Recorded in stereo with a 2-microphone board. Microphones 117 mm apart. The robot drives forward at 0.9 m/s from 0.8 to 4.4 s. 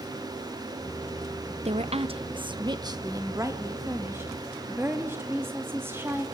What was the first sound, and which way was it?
A woman speaking, 65° right (ahead or behind).